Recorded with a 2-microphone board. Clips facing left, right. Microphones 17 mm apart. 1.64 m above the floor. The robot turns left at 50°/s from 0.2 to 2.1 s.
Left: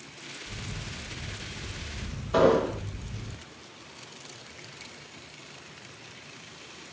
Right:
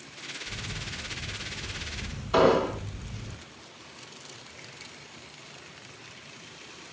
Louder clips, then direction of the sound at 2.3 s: Even; 60° right (ahead or behind).